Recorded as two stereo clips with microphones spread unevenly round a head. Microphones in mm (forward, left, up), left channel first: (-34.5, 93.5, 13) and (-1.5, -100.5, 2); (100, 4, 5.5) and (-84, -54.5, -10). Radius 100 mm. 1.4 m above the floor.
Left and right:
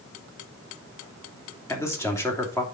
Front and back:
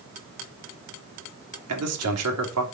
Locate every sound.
1.7 s a man speaking: 175° left, 3 m